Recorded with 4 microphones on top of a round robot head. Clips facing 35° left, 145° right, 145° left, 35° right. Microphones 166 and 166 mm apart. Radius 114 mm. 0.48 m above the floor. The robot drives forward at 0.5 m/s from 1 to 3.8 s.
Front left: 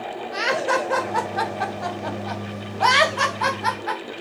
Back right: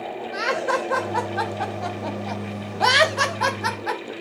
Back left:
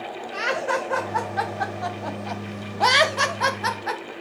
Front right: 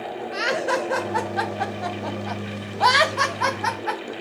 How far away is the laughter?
About 0.8 m.